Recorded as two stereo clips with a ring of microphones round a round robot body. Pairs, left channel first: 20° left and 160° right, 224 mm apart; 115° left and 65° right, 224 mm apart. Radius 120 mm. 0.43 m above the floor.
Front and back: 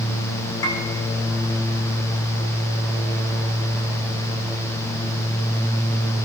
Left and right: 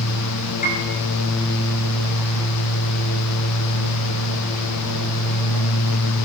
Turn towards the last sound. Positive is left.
turn(degrees=55)